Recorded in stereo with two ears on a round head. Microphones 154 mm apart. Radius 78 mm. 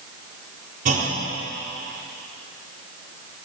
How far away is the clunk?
About 4 m.